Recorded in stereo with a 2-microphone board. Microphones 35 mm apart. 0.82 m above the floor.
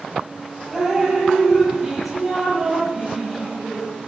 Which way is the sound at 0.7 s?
5° right (ahead or behind).